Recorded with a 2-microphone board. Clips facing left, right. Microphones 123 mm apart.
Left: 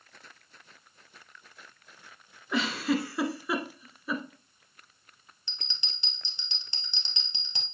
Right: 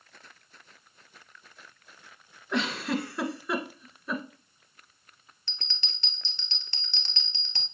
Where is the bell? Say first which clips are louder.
Right 1 dB; 15° left (ahead or behind), 1.6 m.